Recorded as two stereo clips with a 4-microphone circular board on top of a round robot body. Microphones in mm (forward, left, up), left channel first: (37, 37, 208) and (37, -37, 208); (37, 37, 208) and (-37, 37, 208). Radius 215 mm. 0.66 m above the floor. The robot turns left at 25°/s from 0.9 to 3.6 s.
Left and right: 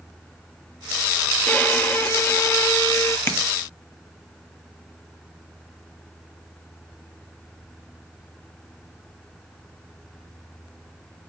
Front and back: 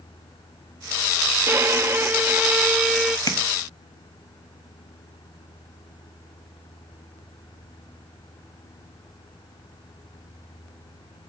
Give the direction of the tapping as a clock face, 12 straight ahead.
11 o'clock.